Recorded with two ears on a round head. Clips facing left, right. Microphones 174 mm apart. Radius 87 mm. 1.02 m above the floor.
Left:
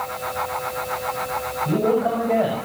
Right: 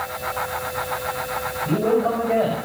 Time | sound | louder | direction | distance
1.6 | a man speaking | even | 5° left (ahead or behind) | 6 m